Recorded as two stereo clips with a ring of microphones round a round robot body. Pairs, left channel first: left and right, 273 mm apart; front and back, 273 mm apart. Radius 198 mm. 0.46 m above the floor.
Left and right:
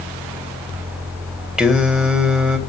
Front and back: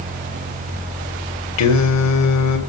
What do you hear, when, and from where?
1.6 s singing: straight ahead, 2.5 m